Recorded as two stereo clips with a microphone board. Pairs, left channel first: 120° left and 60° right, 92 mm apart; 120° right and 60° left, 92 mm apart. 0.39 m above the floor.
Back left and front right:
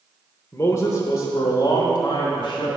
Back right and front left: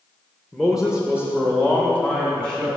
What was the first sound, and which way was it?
A man speaking, 150° left.